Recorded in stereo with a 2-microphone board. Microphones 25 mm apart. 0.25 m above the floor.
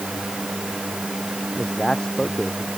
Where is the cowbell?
I don't hear a cowbell.